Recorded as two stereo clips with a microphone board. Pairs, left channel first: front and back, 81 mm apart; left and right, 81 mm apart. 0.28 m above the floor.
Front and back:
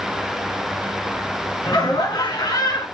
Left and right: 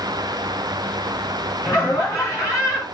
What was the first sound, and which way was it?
Laughter, 40° left.